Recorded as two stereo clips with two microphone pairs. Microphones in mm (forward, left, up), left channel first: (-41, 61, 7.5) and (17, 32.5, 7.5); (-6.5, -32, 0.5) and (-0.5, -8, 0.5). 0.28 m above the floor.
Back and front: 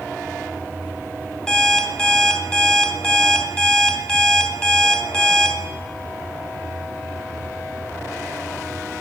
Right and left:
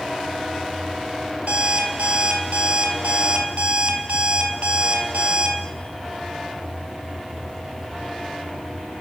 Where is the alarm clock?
80° left, 1.0 m.